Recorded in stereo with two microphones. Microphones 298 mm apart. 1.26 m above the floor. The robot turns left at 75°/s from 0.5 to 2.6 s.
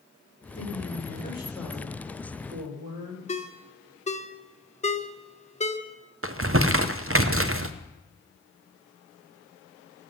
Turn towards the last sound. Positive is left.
turn(degrees=-45)  # may be behind; listen again after turning